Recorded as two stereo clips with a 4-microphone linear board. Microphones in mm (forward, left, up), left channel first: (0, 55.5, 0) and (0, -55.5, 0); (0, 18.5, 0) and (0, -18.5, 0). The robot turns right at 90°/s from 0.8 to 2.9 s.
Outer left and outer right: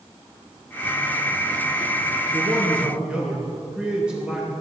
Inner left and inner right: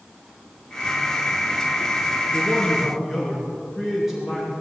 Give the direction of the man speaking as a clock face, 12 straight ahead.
2 o'clock.